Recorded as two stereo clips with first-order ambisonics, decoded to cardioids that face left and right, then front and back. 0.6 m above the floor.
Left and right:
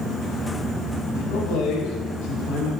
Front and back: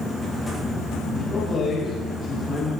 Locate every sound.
1.1 s a man speaking: 70° left, 5 m